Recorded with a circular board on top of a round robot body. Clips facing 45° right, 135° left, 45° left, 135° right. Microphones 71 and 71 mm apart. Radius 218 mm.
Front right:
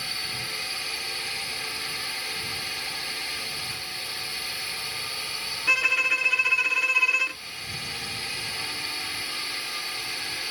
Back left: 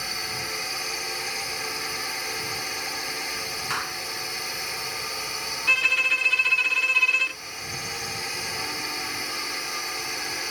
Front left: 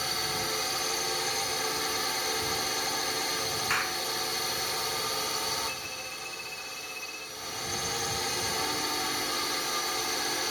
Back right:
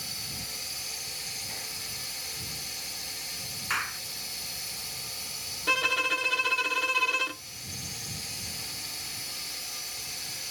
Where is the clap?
135° left.